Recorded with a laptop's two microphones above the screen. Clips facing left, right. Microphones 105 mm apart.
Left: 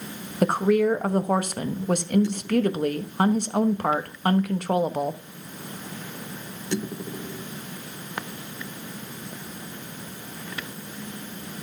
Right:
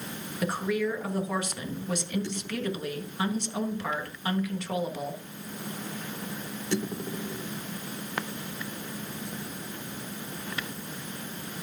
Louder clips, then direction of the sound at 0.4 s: Left 8 dB; 50° left (ahead or behind).